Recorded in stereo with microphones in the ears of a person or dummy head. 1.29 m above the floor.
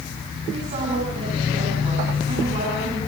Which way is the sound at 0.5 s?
35° right (ahead or behind).